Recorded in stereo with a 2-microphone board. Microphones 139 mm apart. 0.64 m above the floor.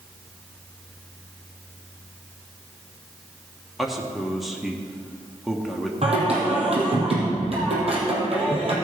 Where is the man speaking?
Centre (ahead or behind), 1.0 m.